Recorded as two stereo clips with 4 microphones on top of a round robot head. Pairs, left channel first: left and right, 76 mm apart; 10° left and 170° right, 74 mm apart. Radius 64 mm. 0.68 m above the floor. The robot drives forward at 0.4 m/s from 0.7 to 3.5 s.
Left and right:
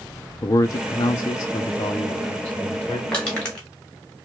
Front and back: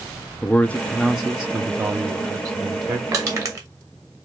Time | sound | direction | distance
0.4 | a man speaking | 75° left | 0.6 m
3.1 | crushing | 165° left | 1.8 m